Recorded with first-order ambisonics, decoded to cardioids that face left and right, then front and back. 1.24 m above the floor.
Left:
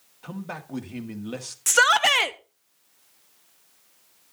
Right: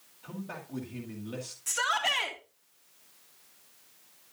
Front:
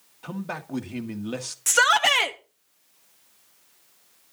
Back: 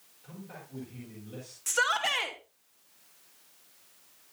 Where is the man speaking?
30° left, 1.6 m.